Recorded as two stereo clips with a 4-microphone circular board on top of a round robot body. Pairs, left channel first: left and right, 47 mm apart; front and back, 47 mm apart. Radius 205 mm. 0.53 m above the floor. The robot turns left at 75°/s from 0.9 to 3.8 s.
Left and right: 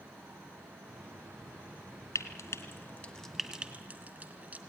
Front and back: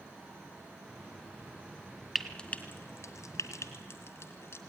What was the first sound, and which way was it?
Frying, 95° left.